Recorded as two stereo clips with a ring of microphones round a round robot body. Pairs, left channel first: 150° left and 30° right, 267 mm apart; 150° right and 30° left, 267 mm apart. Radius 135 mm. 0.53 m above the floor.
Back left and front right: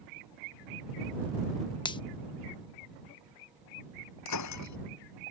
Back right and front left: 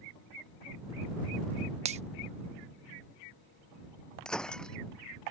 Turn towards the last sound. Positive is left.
turn(degrees=125)